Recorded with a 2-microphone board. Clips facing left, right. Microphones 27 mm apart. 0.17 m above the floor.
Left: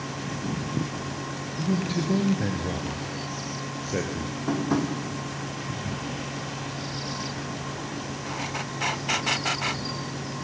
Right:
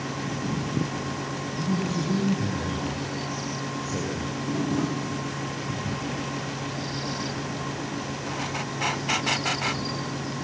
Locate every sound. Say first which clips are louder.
1.6 s a man speaking: left 1 dB; 50° left (ahead or behind), 3 m
4.5 s tapping: left 2 dB; 65° left (ahead or behind), 8.5 m